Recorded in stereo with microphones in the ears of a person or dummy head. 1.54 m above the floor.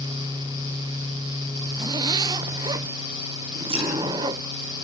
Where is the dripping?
30° right (ahead or behind), 7 m.